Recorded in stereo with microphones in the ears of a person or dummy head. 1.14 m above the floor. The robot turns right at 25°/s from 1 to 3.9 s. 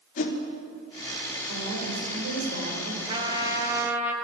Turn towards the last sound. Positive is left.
turn(degrees=-10)  # may be behind; listen again after turning